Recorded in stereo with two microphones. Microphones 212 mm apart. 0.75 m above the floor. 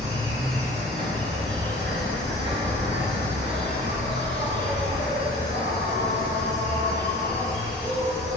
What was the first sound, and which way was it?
An insect, 60° right (ahead or behind).